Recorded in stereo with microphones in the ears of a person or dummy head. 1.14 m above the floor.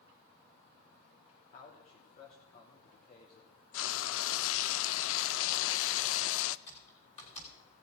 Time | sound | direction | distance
1.5 | a man speaking | 50° left (ahead or behind) | 3 m
3.7 | frying | 75° left (ahead or behind) | 0.5 m
6.7 | typing on a keyboard | 40° left (ahead or behind) | 4 m